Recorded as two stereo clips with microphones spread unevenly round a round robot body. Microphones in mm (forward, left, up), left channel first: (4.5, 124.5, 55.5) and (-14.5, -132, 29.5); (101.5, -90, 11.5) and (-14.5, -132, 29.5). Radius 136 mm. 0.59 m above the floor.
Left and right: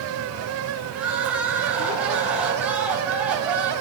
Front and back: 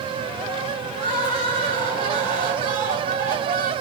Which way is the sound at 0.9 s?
Straight behind.